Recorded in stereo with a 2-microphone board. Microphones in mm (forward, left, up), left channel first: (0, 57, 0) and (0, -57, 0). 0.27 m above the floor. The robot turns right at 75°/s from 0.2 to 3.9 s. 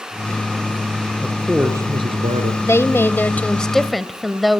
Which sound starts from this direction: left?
A woman speaking, at 2.6 s.